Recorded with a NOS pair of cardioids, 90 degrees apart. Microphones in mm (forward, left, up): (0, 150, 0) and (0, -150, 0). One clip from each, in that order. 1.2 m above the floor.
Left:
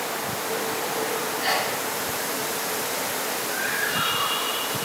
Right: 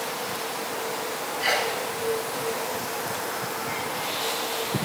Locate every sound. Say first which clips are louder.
1.4 s a sneeze: right 2 dB; 5° right, 2.5 m